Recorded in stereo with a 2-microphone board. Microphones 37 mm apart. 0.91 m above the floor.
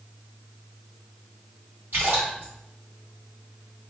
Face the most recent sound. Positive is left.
turn(degrees=-80)